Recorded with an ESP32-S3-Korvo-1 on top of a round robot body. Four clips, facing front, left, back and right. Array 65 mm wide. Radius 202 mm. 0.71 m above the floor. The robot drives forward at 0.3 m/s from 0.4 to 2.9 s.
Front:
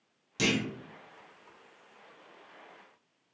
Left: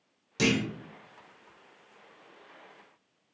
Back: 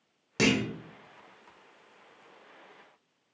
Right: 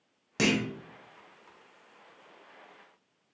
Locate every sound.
0.4 s a clunk: 140° right, 1.0 m; by 0.7 s 145° right, 1.0 m